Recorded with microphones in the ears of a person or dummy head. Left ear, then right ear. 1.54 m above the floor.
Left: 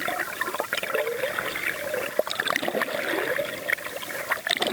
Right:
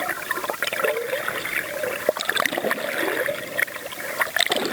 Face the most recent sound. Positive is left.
No sound to turn to.